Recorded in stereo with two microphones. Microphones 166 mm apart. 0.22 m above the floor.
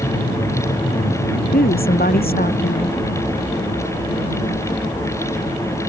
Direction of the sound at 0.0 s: 60° left (ahead or behind).